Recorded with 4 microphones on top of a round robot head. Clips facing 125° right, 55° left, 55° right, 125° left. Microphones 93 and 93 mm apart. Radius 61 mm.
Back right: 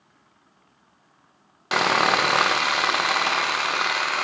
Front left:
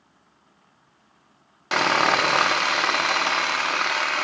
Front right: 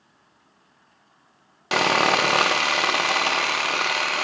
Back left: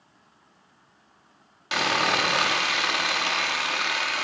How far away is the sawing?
About 0.6 m.